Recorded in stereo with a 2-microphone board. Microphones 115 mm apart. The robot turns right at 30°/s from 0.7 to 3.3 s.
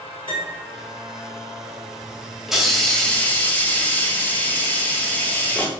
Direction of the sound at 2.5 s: 5° right (ahead or behind).